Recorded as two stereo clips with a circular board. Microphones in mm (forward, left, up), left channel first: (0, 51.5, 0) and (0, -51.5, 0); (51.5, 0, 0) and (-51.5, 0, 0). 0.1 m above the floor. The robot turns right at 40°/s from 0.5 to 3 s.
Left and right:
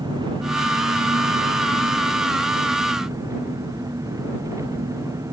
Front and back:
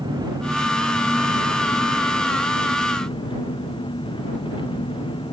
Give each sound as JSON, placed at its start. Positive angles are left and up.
{"t": 0.0, "sound": "an engine running", "azimuth_deg": -135}